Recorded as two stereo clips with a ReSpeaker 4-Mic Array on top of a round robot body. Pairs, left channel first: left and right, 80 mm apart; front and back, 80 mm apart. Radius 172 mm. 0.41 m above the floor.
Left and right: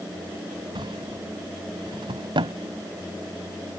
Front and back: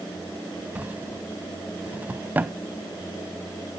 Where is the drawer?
110° right.